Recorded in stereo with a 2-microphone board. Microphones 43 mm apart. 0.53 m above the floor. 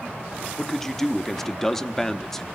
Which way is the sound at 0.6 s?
10° left (ahead or behind).